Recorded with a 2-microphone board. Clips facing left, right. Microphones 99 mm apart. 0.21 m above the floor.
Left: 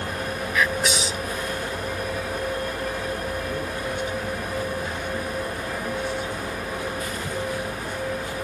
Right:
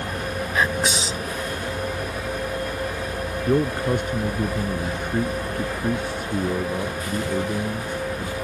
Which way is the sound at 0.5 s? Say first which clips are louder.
Even; 35° right (ahead or behind).